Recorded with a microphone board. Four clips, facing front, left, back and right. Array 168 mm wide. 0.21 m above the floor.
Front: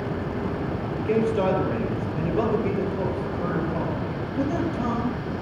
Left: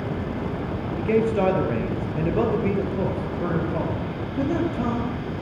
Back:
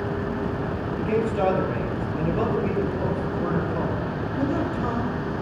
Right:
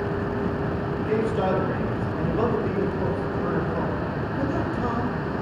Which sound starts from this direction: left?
A man speaking, at 1.0 s.